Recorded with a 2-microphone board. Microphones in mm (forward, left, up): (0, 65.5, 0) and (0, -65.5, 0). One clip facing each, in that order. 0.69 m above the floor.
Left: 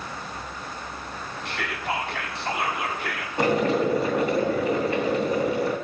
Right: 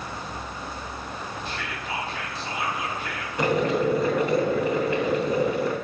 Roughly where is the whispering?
Left.